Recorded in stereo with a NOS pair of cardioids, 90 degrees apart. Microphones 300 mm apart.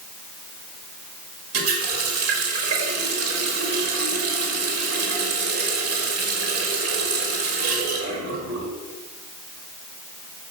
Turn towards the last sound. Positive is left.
turn(degrees=-55)